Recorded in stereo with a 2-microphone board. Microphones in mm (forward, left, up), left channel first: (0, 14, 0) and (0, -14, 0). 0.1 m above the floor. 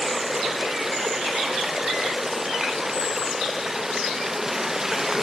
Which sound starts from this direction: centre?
Running water, at 0.0 s.